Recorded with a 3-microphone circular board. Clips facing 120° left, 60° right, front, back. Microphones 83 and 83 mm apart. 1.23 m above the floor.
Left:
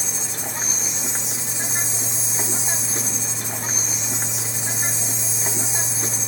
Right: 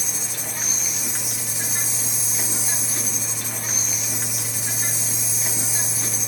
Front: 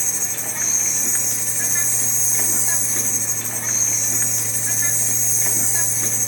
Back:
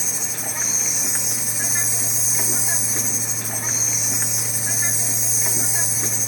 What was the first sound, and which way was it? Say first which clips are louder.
An insect: left 2 dB, back 1 dB; 105° left.